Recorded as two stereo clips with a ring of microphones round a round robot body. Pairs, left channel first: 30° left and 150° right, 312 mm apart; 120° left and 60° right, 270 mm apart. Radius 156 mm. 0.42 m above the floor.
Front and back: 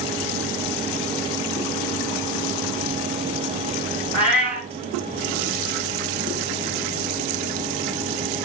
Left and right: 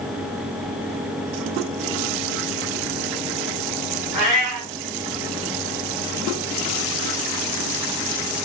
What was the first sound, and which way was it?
A cat meowing, 65° right.